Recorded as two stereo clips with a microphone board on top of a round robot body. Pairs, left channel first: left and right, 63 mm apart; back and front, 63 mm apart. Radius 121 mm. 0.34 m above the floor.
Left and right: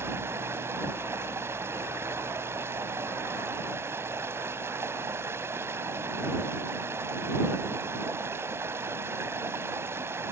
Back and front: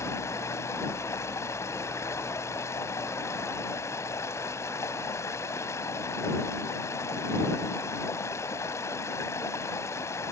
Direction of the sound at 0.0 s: 140° right.